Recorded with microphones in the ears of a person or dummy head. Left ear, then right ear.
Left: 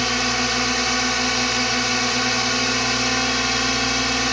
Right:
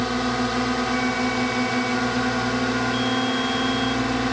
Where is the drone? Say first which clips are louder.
Left 4 dB; 70° left (ahead or behind); by 4.3 s 75° left (ahead or behind).